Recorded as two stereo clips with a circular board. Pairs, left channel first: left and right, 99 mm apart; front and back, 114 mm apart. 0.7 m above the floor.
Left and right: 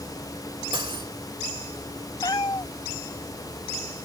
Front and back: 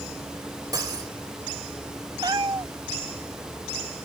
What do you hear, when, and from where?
0.7 s cutlery clinking: 125° right
2.2 s a cat meowing: 130° left